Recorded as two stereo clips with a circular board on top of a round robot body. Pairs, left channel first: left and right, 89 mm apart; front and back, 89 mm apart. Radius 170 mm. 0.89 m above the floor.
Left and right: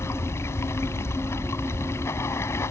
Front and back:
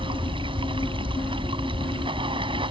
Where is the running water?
150° left.